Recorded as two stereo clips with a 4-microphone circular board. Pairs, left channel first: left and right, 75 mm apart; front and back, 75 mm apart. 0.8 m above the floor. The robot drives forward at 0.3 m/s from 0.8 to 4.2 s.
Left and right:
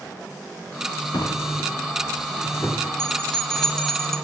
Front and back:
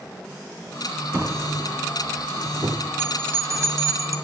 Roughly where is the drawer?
Behind left.